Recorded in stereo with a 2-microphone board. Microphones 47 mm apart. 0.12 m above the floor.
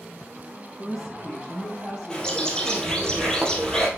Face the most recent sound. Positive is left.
turn(degrees=20)  # may be behind; listen again after turning